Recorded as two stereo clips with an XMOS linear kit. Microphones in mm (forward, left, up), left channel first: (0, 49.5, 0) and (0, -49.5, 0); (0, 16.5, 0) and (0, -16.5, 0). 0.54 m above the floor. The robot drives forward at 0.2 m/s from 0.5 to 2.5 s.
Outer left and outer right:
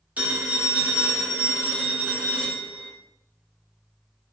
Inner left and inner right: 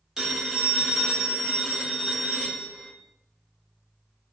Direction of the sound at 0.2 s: 15° right (ahead or behind).